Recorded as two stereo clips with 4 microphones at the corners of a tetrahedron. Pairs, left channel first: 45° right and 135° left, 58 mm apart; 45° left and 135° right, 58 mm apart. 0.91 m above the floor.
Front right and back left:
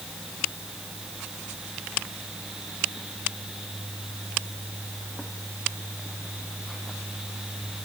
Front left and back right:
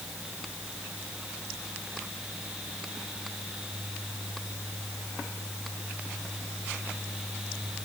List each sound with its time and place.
Only background noise.